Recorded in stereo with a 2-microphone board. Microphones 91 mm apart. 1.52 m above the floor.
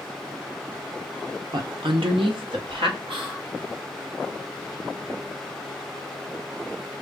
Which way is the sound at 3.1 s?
70° right (ahead or behind).